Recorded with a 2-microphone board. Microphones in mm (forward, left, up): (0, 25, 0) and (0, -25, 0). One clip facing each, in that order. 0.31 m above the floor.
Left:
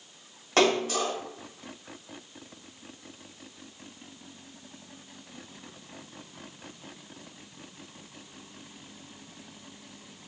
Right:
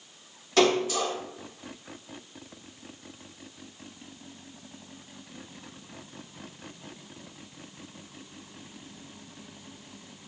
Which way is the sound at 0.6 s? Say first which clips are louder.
Right 1 dB; 50° left (ahead or behind).